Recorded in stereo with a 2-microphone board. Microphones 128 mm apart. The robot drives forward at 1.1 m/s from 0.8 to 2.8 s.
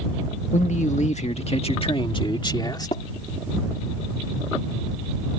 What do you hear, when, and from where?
0.5 s a man speaking: 70° left (ahead or behind); by 3.0 s 35° left (ahead or behind)
2.9 s tapping: 55° left (ahead or behind)